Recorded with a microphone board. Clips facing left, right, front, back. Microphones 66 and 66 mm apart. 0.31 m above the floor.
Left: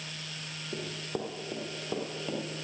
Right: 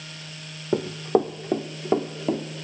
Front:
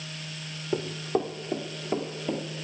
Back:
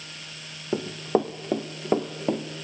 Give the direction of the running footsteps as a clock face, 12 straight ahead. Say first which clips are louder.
Right 15 dB, back 3 dB; 4 o'clock.